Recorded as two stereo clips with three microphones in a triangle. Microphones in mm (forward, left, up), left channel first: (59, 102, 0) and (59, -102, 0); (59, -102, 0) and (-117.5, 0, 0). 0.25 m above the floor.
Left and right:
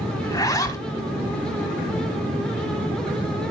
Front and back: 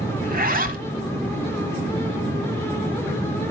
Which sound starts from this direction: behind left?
A zipper, at 0.2 s.